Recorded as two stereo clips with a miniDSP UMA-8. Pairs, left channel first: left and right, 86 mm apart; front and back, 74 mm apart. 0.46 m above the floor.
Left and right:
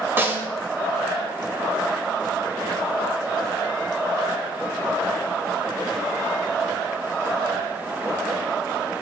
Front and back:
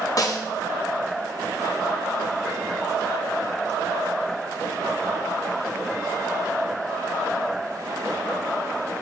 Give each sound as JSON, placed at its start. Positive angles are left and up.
{"t": 0.2, "sound": "a snare drum", "azimuth_deg": -30, "distance_m": 1.5}